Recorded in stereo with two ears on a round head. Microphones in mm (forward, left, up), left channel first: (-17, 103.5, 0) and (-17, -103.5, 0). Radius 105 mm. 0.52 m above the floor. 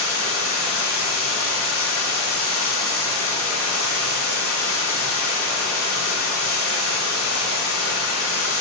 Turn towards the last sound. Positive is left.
turn(degrees=65)  # may be behind; listen again after turning